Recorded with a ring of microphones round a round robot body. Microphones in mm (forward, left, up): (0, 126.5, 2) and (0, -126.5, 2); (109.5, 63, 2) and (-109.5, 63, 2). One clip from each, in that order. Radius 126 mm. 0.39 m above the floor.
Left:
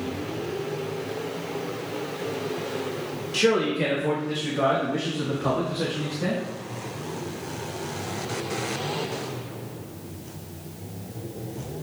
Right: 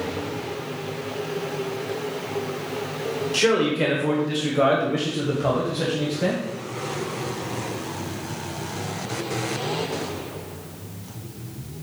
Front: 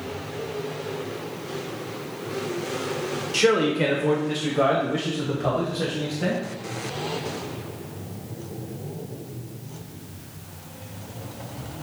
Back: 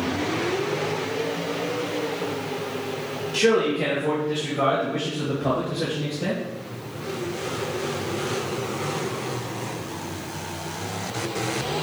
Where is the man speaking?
15° right, 1.1 m; by 6.4 s 40° right, 2.5 m.